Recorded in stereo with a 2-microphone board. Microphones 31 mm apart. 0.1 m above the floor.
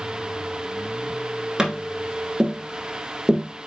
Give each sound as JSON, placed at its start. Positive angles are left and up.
{"t": 1.6, "sound": "tapping", "side_deg": -20, "distance_m": 1.1}